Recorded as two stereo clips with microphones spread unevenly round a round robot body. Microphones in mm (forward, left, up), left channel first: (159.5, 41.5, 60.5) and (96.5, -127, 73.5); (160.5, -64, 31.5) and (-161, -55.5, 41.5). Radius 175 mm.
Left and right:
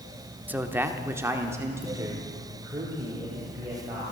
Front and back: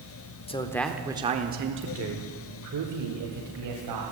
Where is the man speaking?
30° right, 1.1 m; by 4.0 s 170° left, 2.5 m.